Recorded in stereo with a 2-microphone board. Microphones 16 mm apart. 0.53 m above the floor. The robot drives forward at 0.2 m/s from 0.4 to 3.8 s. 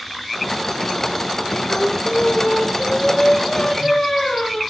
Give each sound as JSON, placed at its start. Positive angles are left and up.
{"t": 1.7, "sound": "singing", "side_deg": 50, "distance_m": 1.0}